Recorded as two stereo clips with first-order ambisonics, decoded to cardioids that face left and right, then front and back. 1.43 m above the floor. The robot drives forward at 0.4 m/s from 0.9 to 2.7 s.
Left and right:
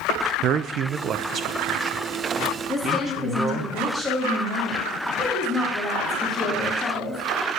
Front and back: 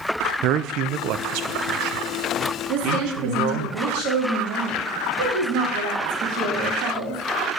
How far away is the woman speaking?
About 3.5 m.